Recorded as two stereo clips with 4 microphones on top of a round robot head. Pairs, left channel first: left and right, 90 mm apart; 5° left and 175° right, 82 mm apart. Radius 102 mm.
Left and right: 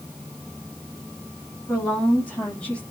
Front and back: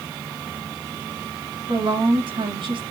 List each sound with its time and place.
1.7 s a woman speaking: 165° left, 9.5 m; by 2.8 s 170° left, 10 m